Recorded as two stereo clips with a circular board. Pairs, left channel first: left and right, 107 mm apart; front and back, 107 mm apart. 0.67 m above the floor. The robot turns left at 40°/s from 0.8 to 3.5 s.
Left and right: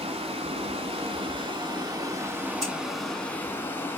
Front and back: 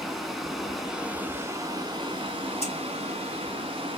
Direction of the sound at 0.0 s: 90° right.